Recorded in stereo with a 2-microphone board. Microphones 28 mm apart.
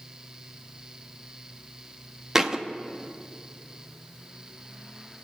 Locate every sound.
2.4 s a thud: 15° right (ahead or behind), 0.8 m